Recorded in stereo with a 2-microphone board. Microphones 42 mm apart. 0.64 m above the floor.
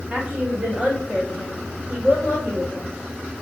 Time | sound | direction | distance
0.1 | a woman speaking | 30° right (ahead or behind) | 1.7 m